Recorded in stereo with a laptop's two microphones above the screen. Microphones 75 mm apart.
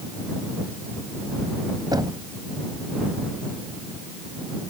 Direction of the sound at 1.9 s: 65° right (ahead or behind).